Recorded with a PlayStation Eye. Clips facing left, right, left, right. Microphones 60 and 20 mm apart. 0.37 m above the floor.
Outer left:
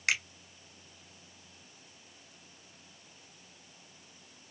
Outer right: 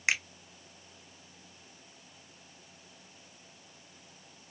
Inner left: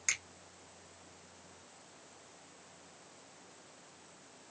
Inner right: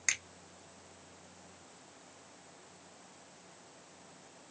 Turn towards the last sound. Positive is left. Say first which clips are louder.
# outer right 1 dB, inner right 2 dB
turn(degrees=-15)  # may be behind; listen again after turning